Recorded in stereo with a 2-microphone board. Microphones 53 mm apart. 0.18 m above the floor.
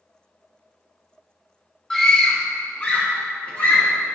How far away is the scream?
About 1.2 m.